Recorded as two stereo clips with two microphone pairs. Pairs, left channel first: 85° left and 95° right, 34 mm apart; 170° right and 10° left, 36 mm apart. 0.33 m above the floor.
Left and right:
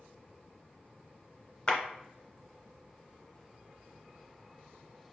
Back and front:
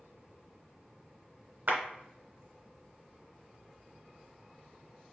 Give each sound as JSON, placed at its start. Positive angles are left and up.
{"t": 1.7, "sound": "a clap", "azimuth_deg": 35, "distance_m": 1.0}